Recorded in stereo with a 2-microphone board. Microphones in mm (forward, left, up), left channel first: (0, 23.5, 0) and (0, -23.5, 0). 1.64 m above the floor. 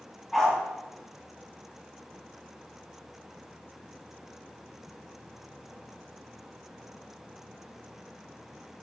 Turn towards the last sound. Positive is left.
turn(degrees=5)  # may be behind; listen again after turning